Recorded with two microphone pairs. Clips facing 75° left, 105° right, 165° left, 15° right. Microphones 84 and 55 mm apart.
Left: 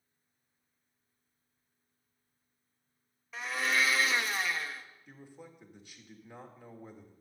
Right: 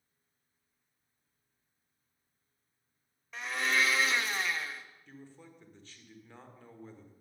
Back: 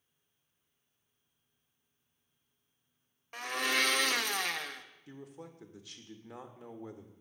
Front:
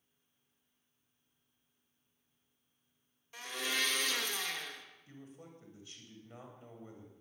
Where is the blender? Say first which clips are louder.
Even, back 6 dB; 165° left, 0.8 m.